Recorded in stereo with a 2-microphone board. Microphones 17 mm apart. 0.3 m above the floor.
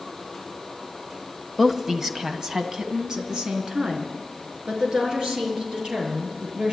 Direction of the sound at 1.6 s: 15° right (ahead or behind).